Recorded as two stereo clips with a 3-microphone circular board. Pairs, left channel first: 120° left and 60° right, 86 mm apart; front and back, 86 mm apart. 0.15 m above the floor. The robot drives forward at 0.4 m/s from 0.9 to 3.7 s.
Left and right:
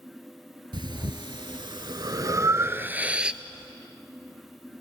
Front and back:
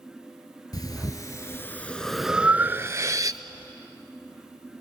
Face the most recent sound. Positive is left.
turn(degrees=-145)